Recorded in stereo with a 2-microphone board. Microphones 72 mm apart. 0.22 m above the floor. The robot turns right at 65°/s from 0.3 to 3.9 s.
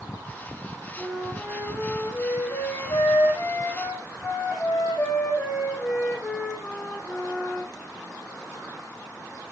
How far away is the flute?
About 9 m.